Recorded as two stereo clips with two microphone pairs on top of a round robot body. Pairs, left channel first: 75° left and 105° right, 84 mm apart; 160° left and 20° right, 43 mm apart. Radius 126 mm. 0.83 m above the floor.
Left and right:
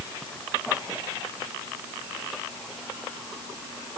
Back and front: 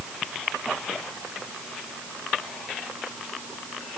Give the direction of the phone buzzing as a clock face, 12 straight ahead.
No phone buzzing in this recording.